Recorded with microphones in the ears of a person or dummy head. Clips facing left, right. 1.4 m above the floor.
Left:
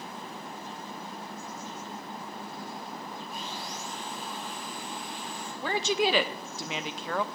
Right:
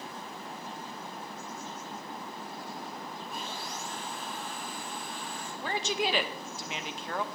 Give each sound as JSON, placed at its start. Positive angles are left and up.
{"t": 3.3, "sound": "sawing", "side_deg": -60, "distance_m": 2.5}
{"t": 5.6, "sound": "a woman speaking", "side_deg": 65, "distance_m": 0.9}